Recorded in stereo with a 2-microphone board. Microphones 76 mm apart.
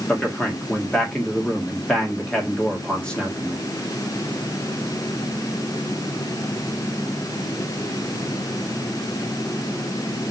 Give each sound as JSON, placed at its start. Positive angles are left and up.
{"t": 0.1, "sound": "a man speaking", "side_deg": 10, "distance_m": 1.6}